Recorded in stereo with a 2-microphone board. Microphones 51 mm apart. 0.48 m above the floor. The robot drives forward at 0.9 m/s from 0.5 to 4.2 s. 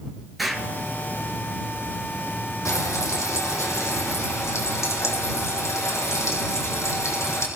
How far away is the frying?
About 4 m.